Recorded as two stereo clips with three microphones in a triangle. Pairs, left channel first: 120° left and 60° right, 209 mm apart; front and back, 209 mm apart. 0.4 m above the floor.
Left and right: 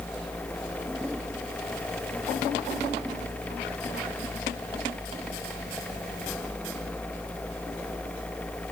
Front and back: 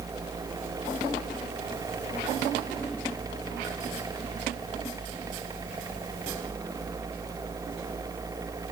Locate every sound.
Only background noise.